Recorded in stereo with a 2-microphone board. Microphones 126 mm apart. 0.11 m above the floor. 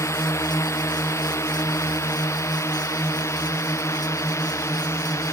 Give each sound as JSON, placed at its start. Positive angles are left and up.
{"t": 0.0, "sound": "a drone", "side_deg": 20}